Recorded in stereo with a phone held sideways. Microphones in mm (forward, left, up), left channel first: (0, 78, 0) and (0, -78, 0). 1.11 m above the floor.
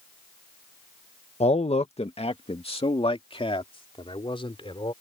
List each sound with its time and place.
1.4 s a man speaking: 45° left (ahead or behind); by 4.9 s 35° left (ahead or behind)